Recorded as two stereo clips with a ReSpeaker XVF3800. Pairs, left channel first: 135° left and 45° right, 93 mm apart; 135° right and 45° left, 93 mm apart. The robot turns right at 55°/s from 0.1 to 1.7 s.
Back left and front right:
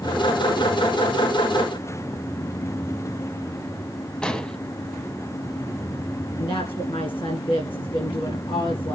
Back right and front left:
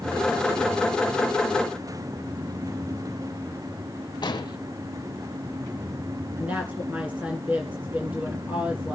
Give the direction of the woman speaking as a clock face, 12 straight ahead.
8 o'clock.